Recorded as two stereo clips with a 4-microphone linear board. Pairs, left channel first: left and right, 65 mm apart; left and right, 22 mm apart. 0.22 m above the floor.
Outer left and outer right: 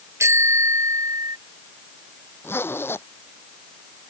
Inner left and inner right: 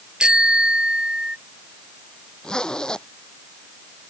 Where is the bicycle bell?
45° right (ahead or behind); by 1.4 s 60° right (ahead or behind).